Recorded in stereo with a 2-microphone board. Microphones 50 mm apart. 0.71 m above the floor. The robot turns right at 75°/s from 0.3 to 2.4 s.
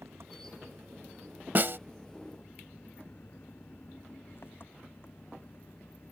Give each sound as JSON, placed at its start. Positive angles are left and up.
{"t": 0.0, "sound": "an engine running", "azimuth_deg": -110}
{"t": 1.6, "sound": "a snare drum", "side_deg": -40}